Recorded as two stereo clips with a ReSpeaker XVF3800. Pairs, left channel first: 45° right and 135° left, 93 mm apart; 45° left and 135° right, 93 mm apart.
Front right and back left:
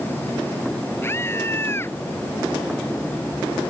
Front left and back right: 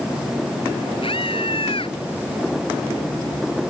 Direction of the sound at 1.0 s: 20° left.